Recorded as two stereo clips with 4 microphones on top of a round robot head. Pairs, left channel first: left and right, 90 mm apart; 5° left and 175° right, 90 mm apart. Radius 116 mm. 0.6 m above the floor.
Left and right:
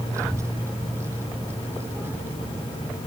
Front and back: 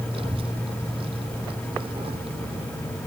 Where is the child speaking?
150° right; by 2.7 s 160° right.